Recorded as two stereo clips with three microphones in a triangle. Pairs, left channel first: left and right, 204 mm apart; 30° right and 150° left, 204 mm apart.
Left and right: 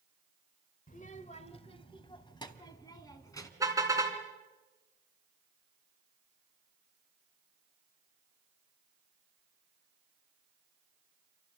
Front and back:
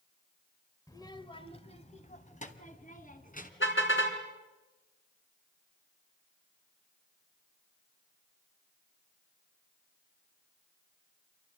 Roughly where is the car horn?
Ahead.